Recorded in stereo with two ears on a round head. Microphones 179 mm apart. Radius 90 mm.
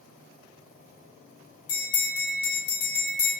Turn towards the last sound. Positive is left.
turn(degrees=75)  # may be behind; listen again after turning